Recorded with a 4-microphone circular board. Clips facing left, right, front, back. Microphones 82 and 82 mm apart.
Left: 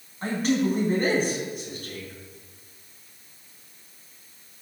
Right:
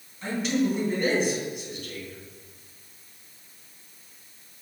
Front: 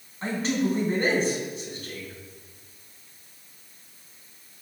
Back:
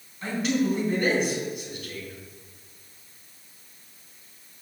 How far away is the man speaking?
About 3.5 m.